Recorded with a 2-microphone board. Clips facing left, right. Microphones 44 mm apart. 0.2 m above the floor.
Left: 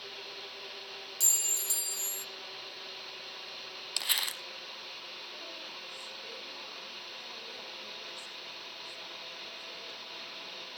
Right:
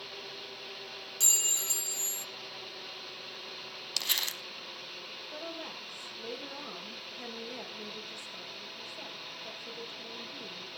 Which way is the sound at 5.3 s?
40° right (ahead or behind).